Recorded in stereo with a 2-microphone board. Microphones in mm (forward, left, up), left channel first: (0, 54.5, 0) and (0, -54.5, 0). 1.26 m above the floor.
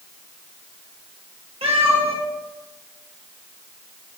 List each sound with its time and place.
1.6 s a cat meowing: 65° right (ahead or behind), 2.5 m